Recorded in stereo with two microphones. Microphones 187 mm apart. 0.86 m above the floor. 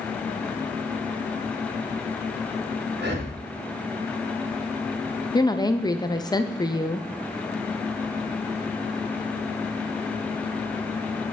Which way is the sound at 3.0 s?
65° right (ahead or behind).